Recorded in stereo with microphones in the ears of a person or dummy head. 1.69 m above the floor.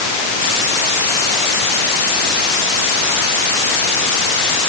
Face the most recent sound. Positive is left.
No sound to turn to.